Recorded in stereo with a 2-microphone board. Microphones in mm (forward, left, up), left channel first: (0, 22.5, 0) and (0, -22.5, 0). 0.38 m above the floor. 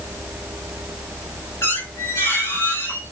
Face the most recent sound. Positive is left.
turn(degrees=85)